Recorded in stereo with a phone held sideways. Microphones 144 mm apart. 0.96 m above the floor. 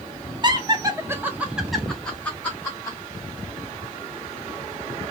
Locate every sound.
0.4 s laughter: 30° right (ahead or behind), 0.8 m; by 3.0 s 15° left (ahead or behind), 1.2 m